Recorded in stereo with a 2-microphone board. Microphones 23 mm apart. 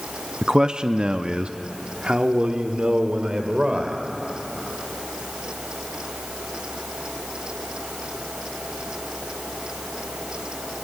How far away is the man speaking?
About 0.6 m.